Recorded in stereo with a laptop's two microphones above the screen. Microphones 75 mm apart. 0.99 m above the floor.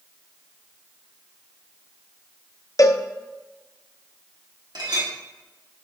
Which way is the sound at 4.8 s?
65° right (ahead or behind).